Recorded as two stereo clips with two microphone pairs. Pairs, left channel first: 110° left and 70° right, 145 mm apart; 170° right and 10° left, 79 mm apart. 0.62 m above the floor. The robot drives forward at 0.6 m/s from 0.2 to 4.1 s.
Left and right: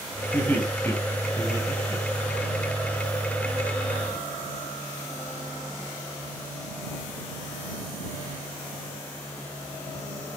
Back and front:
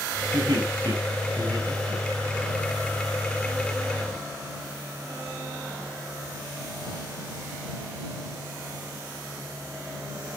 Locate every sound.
0.3 s laughter: 35° left, 6.5 m; by 2.5 s 40° left, 5.5 m